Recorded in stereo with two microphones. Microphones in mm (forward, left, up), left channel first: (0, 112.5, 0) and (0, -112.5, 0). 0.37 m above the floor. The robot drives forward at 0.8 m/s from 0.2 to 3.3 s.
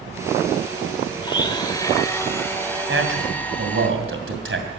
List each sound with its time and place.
1.2 s a blender: 20° left (ahead or behind), 0.8 m; by 3.9 s 10° left (ahead or behind), 2.0 m
2.9 s a man speaking: 60° right (ahead or behind), 2.5 m; by 4.7 s 65° right (ahead or behind), 2.5 m